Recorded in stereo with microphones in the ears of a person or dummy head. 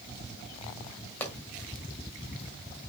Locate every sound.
1.2 s a pop: 10° left (ahead or behind), 1.7 m